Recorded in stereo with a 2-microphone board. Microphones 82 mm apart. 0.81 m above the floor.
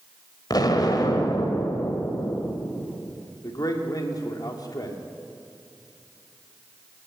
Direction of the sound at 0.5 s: 55° left (ahead or behind).